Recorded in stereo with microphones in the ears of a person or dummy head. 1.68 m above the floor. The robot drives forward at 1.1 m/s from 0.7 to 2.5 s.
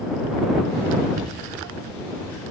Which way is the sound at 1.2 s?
45° right (ahead or behind).